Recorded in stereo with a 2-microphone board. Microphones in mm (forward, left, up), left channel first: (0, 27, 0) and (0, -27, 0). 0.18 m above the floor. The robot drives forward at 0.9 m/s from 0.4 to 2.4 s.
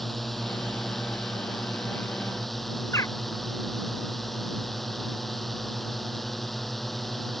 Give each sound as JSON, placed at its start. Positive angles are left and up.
{"t": 0.0, "sound": "a drone", "side_deg": 0}
{"t": 2.9, "sound": "a bird", "side_deg": 65}